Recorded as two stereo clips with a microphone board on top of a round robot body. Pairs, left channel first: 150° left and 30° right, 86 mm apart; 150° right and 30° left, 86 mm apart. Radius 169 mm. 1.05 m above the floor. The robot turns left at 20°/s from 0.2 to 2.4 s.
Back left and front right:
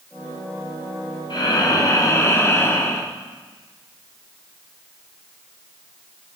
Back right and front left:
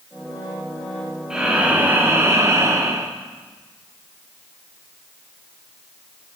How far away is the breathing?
About 1.4 m.